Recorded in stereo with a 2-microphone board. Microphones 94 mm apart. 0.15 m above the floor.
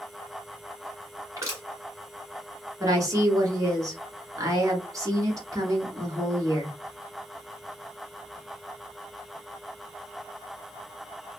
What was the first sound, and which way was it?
Crushing, 35° right (ahead or behind).